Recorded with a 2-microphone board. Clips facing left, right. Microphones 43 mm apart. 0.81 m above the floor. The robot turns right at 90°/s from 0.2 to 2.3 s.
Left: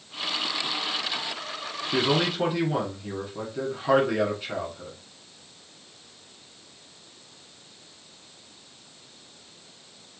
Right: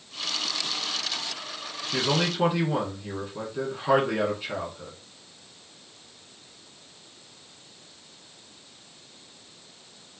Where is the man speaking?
145° left, 1.5 m; by 5.0 s straight behind, 1.5 m.